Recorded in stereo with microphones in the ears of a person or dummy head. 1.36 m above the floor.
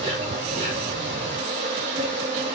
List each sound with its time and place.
0.0 s an insect: 30° right (ahead or behind), 2.5 m